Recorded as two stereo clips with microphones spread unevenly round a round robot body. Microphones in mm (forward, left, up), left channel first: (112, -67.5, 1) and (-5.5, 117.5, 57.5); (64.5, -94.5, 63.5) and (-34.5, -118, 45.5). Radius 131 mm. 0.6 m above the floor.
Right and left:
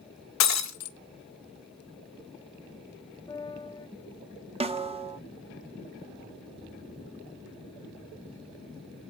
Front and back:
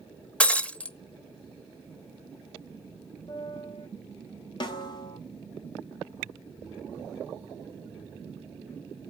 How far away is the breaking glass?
About 0.8 m.